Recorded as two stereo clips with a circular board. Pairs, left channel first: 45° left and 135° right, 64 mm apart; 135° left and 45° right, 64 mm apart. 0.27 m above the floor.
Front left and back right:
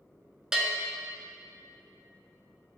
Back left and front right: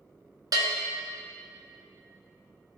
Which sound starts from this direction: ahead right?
A bell, at 0.5 s.